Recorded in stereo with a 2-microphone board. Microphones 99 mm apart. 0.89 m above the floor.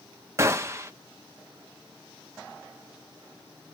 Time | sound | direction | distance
0.4 | a gunshot | 30° right (ahead or behind) | 0.8 m